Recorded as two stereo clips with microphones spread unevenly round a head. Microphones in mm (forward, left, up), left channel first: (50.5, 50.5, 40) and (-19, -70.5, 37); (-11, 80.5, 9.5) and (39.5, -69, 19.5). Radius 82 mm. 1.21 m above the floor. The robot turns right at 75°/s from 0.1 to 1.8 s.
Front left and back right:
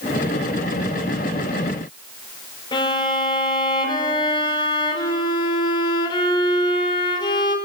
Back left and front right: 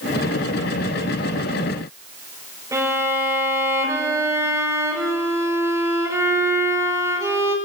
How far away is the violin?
About 5 m.